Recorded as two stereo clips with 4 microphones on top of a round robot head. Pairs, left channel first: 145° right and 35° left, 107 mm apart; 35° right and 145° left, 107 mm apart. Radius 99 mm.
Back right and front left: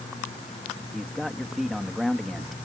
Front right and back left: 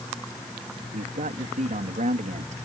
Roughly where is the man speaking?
Behind left.